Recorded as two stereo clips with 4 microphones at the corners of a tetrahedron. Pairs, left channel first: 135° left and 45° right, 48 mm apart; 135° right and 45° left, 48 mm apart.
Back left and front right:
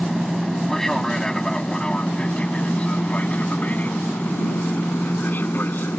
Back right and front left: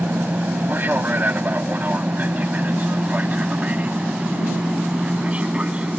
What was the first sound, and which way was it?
An aircraft, 45° left.